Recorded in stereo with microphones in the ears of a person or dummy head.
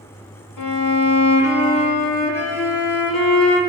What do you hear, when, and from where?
0.6 s a violin: 75° left (ahead or behind), 1.2 m